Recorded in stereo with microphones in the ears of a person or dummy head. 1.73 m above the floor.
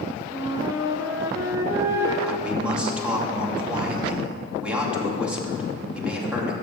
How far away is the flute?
About 1.3 m.